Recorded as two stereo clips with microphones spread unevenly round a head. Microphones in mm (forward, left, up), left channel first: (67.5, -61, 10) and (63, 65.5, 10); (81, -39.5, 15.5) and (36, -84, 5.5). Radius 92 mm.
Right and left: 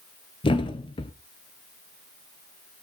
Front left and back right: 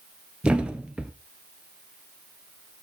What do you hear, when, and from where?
0.4 s a thud: 60° right, 1.2 m